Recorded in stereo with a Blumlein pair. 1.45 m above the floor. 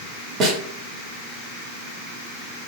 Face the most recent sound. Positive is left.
turn(degrees=-30)